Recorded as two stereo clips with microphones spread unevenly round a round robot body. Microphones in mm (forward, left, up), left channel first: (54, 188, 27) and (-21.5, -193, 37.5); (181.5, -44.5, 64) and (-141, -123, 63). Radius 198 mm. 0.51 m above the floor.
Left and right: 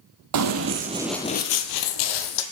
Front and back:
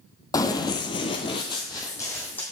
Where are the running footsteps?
65° right, 0.8 m; by 2.4 s 100° left, 1.0 m.